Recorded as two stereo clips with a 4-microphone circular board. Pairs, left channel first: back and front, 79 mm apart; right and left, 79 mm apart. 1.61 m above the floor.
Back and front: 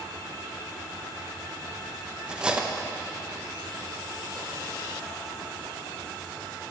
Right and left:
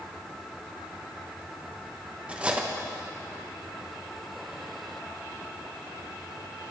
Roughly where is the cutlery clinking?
Ahead left.